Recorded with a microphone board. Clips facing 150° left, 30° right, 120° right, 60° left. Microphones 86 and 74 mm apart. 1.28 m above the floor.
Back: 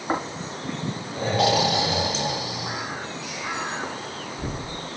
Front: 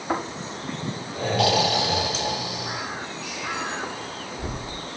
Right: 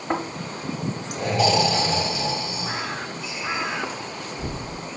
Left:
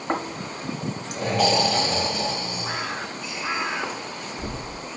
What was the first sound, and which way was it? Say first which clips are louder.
Snoring: back 1 dB, right 1 dB; 90° left.